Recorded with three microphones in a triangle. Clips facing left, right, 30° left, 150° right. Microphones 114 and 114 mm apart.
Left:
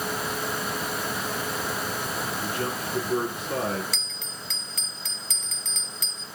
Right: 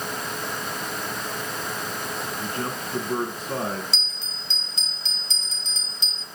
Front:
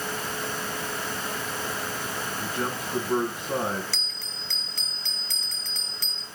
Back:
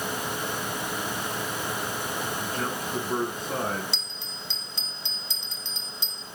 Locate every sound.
2.4 s a man speaking: 50° right, 1.4 m
3.9 s a bell: 105° right, 1.2 m